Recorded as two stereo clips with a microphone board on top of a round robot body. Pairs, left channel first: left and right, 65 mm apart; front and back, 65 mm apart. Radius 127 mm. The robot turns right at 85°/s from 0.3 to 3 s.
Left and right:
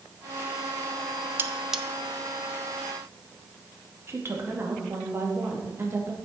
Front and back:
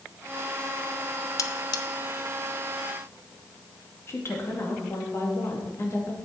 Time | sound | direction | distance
1.4 | cutlery clinking | 40° right | 0.7 m
4.1 | a woman speaking | 45° right | 2 m